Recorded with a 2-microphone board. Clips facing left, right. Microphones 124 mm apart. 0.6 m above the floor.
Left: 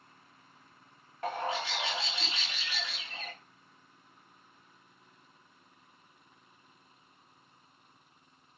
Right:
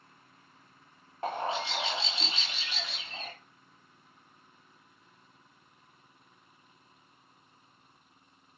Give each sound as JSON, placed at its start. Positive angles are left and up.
{"t": 1.2, "sound": "a bird", "side_deg": -25, "distance_m": 1.0}